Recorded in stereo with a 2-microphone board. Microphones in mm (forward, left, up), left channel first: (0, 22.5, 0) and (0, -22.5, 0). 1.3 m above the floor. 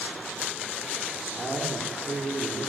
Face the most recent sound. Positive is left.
turn(degrees=5)  # may be behind; listen again after turning